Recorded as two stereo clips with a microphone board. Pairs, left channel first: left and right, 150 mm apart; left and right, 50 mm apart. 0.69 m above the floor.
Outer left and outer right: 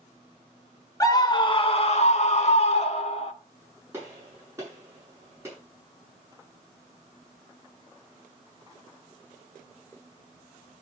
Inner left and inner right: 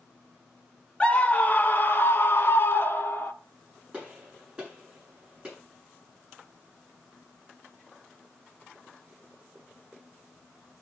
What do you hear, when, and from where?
1.0 s a scream: 25° left (ahead or behind), 1.0 m; by 3.3 s 45° left (ahead or behind), 1.6 m
3.9 s a gunshot: 20° right (ahead or behind), 8.5 m